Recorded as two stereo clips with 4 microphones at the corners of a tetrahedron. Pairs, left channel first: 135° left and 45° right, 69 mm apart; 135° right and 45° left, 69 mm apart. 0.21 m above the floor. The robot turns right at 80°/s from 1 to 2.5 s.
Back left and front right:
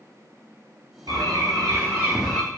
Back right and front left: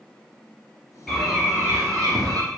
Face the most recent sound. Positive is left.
turn(degrees=60)